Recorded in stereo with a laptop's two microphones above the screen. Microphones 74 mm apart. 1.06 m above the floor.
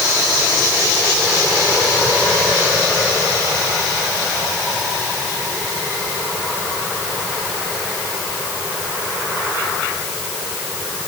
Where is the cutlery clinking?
No cutlery clinking in this recording.